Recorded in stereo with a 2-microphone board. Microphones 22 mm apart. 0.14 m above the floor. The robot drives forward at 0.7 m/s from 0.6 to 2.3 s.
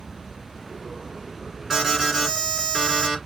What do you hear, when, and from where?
0.0 s an insect: 45° right (ahead or behind), 0.7 m; by 3.3 s 15° right (ahead or behind), 1.8 m
1.7 s an alarm: 10° right (ahead or behind), 1.4 m